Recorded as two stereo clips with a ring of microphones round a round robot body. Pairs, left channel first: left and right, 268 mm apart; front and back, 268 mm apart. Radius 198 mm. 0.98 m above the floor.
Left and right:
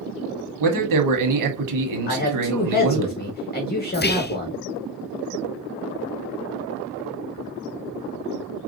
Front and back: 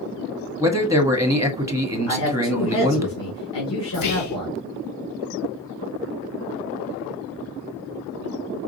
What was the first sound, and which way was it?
A man speaking, 100° right.